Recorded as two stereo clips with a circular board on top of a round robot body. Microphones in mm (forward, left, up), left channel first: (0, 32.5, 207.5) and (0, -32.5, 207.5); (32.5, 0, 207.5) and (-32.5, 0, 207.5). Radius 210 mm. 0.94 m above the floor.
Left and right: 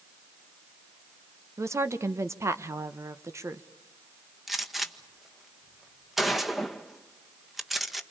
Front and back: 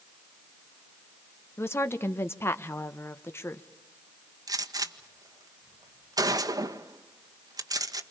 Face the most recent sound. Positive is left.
turn(degrees=-175)